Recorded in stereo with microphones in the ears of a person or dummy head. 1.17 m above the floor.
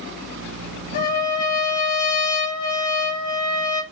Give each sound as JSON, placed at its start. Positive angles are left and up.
{"t": 0.9, "sound": "a trumpet", "side_deg": 50, "distance_m": 0.9}